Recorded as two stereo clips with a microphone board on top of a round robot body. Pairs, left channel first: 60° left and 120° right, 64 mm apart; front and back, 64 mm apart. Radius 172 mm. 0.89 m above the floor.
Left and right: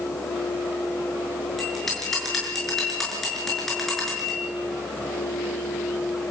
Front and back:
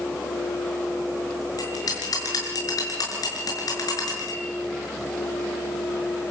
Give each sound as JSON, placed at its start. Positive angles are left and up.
{"t": 1.6, "sound": "a bell", "azimuth_deg": -25, "distance_m": 7.0}